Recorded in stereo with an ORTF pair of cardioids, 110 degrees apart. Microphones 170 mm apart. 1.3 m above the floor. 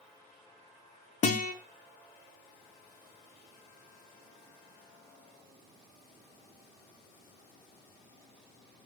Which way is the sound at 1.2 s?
45° left.